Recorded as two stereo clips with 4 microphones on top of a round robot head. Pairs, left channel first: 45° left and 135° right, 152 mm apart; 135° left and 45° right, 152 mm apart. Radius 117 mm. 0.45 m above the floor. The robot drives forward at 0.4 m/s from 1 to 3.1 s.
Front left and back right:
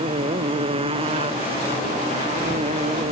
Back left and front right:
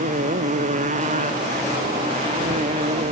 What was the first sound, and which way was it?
A motorcycle, 80° right.